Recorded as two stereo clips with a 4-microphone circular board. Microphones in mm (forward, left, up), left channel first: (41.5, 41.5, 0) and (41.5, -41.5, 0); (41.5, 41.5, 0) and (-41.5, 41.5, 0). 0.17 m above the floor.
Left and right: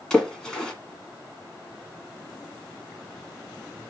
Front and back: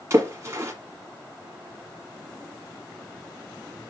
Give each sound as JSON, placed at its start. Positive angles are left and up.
{"t": 0.1, "sound": "a splash", "azimuth_deg": 165, "distance_m": 1.3}